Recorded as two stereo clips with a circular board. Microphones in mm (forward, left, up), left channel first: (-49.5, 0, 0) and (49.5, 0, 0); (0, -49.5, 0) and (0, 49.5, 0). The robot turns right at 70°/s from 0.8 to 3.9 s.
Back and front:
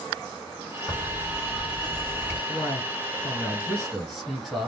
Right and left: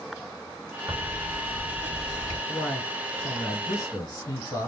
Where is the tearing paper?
140° left, 1.9 m; by 2.4 s 115° right, 1.9 m.